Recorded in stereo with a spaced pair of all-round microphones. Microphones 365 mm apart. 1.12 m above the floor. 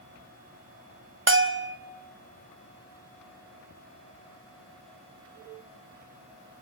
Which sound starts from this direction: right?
A bell, at 1.3 s.